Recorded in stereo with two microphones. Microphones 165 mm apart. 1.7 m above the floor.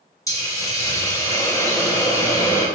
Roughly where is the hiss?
Centre.